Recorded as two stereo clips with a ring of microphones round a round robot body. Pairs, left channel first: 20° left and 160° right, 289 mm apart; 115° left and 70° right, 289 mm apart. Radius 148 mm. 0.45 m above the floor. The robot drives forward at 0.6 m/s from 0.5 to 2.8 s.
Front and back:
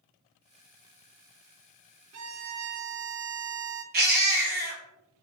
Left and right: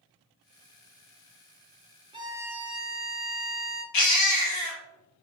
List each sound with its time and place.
2.1 s a violin: 135° right, 0.7 m; by 3.8 s 155° right, 1.0 m
3.9 s a baby crying: 145° left, 1.4 m